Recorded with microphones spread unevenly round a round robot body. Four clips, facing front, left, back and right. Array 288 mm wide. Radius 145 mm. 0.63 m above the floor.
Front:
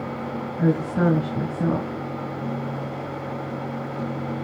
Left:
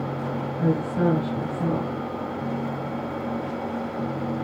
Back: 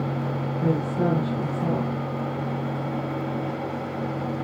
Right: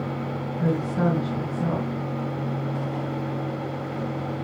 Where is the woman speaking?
Straight ahead, 3.5 m.